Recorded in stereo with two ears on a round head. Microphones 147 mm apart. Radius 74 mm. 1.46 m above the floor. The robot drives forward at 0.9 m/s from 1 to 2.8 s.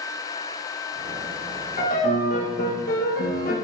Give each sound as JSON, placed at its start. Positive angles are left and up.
{"t": 1.8, "sound": "a piano", "side_deg": 45, "distance_m": 2.5}